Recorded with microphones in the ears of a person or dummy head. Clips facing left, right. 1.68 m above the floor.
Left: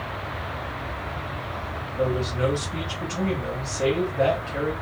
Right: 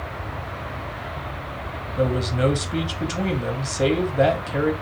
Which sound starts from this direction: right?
A man speaking, at 2.0 s.